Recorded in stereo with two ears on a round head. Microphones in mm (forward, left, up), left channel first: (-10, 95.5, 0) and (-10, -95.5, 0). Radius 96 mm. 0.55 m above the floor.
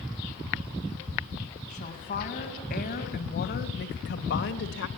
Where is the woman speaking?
40° left (ahead or behind), 4 m; by 4.9 s 65° left (ahead or behind), 1.8 m.